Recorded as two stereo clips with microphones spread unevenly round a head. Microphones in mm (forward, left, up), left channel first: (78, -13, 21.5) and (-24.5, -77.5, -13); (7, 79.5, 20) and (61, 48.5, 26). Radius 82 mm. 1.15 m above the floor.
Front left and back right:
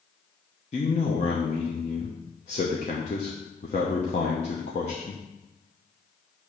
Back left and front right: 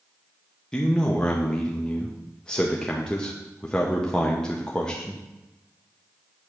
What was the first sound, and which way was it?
A man speaking, 80° left.